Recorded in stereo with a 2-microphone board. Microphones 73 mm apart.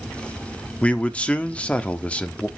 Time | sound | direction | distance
0.8 | a man speaking | 15° left (ahead or behind) | 0.9 m